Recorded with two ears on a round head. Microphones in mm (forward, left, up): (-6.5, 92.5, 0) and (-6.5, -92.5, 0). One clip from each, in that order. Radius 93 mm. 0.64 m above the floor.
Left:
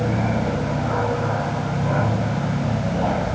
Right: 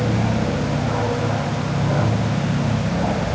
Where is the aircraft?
30° left (ahead or behind).